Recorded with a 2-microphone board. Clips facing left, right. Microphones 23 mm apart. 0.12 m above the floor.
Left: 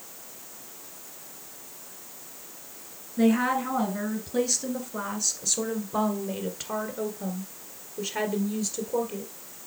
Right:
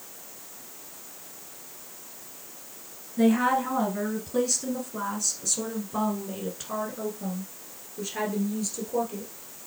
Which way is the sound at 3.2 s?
Centre (ahead or behind).